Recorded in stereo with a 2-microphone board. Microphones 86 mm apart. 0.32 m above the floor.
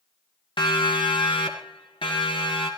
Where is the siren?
65° left (ahead or behind), 3 m; by 2.7 s 80° left, 5.5 m.